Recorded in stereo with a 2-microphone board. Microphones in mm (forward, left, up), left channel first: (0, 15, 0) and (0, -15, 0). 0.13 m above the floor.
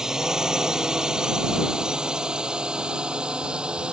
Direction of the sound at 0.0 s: 20° right (ahead or behind).